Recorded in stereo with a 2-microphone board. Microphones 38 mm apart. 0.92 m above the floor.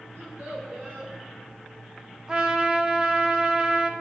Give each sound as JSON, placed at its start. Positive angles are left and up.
{"t": 0.1, "sound": "a child speaking", "side_deg": -65, "distance_m": 2.0}
{"t": 2.3, "sound": "a trumpet", "side_deg": -20, "distance_m": 0.6}